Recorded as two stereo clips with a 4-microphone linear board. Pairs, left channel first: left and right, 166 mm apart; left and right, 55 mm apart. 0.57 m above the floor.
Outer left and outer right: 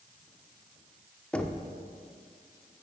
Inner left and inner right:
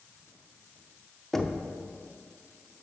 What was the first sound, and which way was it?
Knocking, 5° left (ahead or behind).